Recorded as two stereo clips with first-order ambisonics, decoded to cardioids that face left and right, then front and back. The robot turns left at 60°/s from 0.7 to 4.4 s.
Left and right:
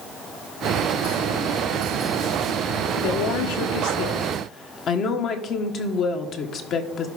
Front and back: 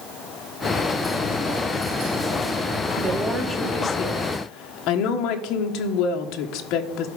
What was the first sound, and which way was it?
A woman speaking, 120° left.